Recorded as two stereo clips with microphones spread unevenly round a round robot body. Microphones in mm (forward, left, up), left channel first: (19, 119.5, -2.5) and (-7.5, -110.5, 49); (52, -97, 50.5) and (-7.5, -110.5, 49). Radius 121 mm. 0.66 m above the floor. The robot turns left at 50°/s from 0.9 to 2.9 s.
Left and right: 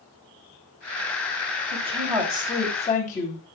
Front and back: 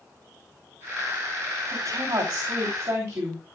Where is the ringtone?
No ringtone in this recording.